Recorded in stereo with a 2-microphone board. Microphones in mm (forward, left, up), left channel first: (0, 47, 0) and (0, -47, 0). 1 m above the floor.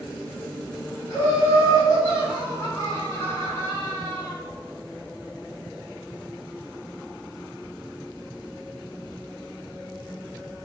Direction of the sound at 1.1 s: 30° left (ahead or behind).